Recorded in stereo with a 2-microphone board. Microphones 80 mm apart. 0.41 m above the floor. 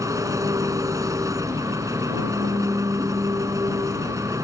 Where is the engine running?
45° right (ahead or behind).